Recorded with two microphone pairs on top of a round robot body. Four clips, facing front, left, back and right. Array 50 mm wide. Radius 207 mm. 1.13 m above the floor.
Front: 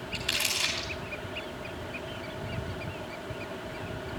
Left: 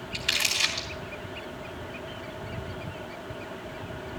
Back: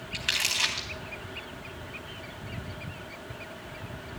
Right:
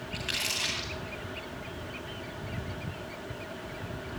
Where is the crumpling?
170° left, 1.6 m.